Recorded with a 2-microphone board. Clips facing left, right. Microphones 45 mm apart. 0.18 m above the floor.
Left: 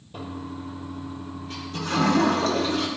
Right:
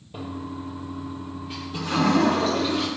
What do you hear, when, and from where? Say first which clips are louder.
0.1 s a toilet flushing: right 1 dB; 10° right (ahead or behind), 5.5 m